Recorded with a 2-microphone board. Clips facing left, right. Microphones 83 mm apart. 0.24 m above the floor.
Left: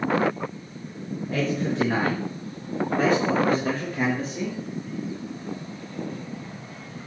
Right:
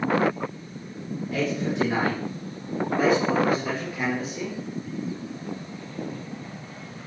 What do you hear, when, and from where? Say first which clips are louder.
1.3 s a man speaking: left 1 dB; 40° left (ahead or behind), 4 m; by 4.6 s 45° left (ahead or behind), 5.5 m